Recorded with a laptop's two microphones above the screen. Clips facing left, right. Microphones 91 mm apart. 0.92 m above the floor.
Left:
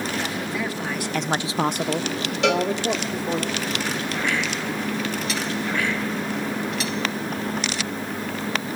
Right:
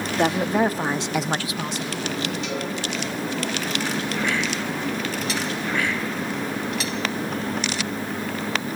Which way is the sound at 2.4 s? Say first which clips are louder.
Left 8 dB; 85° left.